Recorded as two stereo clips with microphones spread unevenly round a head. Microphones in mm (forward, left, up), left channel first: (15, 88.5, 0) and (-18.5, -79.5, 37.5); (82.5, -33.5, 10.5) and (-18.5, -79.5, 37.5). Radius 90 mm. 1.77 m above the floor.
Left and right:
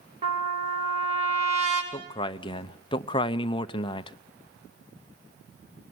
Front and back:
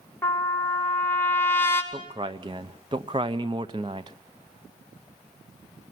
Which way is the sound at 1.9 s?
145° left.